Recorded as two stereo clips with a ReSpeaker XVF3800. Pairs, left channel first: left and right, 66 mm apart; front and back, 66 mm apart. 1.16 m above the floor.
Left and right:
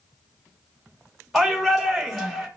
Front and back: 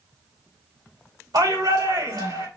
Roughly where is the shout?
Behind.